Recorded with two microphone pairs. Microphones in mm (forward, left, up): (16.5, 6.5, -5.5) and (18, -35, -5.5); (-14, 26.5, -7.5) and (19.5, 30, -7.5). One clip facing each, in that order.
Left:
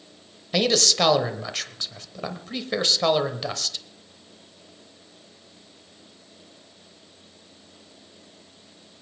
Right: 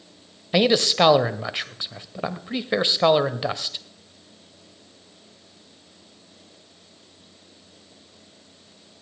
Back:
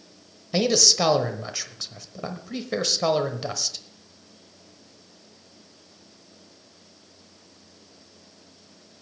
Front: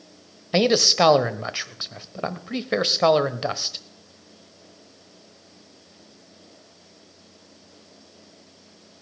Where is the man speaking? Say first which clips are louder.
Right 3 dB, front 3 dB; 30° right, 1.0 m.